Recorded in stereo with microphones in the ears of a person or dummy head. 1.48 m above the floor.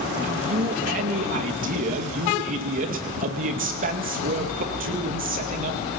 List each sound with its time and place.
0.2 s a man speaking: 45° right (ahead or behind), 2 m